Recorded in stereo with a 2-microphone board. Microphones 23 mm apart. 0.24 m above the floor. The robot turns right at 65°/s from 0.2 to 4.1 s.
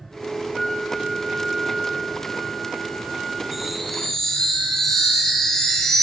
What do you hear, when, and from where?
0.5 s a flute: 40° left, 4 m; by 3.4 s 135° right, 4 m
3.5 s a chime: 20° right, 8 m; by 6.0 s 15° left, 8 m